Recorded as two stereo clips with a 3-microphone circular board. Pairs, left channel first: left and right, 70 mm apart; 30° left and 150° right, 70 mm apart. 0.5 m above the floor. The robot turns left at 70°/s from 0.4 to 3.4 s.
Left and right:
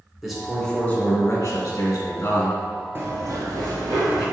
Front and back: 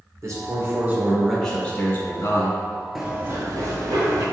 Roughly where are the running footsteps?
Ahead right.